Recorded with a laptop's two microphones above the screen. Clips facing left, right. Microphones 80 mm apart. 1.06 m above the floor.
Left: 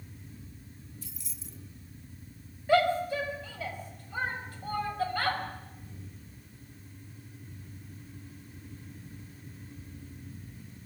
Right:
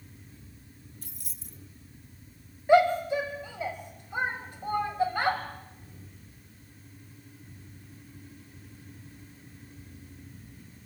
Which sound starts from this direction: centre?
A shout, at 2.7 s.